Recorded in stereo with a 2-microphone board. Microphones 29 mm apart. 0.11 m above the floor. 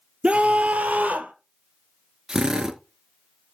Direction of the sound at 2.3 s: 20° right (ahead or behind).